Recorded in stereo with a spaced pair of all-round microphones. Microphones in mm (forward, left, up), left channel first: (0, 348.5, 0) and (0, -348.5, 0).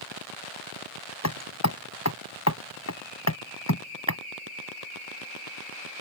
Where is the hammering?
20° left (ahead or behind).